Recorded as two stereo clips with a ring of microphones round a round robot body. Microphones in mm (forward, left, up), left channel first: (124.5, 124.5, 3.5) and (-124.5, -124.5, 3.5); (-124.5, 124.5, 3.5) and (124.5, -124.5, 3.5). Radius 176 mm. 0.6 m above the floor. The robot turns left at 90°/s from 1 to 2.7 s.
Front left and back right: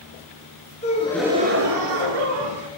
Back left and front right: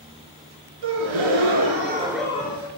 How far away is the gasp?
About 1.8 m.